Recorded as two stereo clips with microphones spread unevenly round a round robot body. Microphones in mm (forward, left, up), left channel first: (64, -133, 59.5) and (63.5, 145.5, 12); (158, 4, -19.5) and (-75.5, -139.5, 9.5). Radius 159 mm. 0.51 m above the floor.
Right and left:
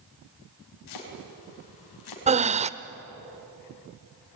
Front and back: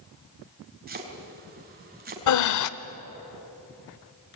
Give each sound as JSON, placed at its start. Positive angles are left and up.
{"t": 0.9, "sound": "chopping", "azimuth_deg": -90, "distance_m": 4.5}
{"t": 2.3, "sound": "breathing", "azimuth_deg": 25, "distance_m": 0.9}